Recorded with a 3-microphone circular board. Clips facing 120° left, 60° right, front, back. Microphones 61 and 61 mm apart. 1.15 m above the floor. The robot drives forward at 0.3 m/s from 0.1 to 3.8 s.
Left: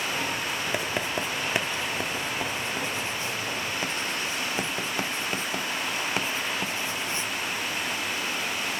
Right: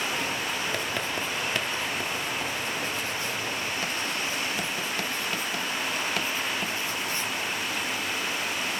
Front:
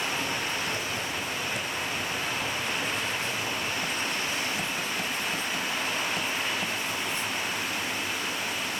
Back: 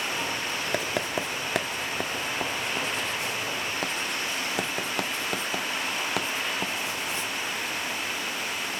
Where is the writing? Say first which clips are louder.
Left 1 dB, back 4 dB; 170° right, 1.2 m; by 7.2 s 175° right, 2 m.